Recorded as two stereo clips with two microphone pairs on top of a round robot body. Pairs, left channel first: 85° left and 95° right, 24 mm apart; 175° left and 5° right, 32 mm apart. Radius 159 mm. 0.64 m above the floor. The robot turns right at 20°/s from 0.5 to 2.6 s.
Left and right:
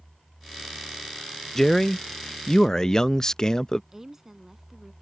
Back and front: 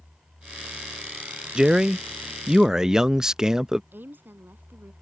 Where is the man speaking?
20° left; by 3.8 s 40° left.